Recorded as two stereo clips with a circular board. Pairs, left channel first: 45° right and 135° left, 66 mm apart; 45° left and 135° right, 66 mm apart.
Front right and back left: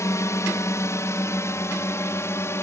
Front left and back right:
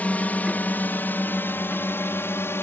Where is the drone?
20° right; by 2.6 s 5° right.